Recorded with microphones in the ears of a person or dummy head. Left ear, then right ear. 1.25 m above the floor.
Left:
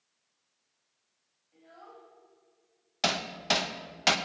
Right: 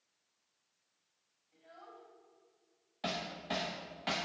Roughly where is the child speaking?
Centre.